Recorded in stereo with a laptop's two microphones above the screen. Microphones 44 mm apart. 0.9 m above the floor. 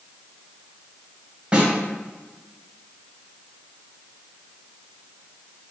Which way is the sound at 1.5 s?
20° right (ahead or behind).